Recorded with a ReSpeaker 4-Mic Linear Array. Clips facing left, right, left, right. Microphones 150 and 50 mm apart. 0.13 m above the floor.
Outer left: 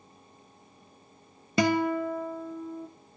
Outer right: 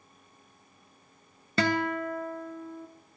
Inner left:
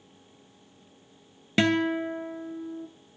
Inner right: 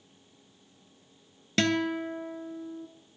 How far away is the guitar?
About 0.6 m.